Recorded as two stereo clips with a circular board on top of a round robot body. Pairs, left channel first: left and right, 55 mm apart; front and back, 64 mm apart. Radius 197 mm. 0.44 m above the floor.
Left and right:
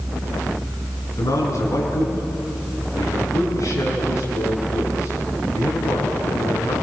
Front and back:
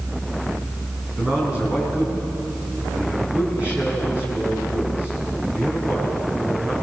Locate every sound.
1.2 s a man speaking: 110° left, 6 m